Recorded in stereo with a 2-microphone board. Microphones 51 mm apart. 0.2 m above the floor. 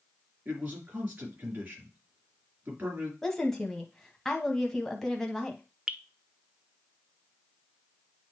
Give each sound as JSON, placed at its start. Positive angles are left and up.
{"t": 0.5, "sound": "a man speaking", "side_deg": -35, "distance_m": 3.5}
{"t": 3.2, "sound": "a woman speaking", "side_deg": 10, "distance_m": 1.0}
{"t": 5.9, "sound": "dripping", "side_deg": -15, "distance_m": 0.5}